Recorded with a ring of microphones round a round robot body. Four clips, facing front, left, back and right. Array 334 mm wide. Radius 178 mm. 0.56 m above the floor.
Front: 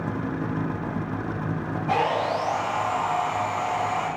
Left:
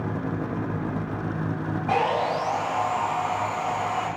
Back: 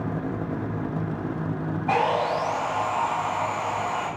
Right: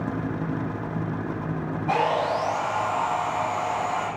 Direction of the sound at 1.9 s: 175° right.